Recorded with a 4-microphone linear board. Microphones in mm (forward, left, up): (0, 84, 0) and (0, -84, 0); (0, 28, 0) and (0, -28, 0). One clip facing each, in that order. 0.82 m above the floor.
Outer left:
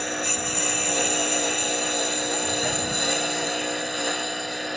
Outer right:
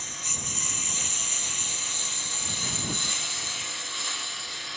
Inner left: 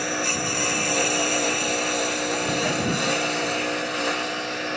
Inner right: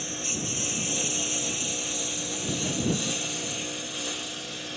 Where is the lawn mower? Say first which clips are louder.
Outer left 14 dB, inner left 9 dB; 70° left (ahead or behind); by 4.8 s 60° left (ahead or behind).